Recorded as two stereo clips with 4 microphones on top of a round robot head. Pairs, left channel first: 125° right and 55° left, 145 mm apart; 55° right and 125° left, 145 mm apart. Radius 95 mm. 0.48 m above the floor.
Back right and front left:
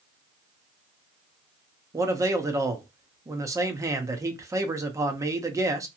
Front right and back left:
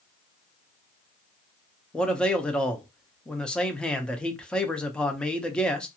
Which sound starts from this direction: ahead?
A man speaking, at 1.9 s.